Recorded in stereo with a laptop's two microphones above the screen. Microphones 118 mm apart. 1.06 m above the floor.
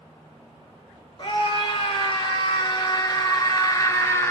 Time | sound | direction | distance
1.2 | a scream | 45° left (ahead or behind) | 3 m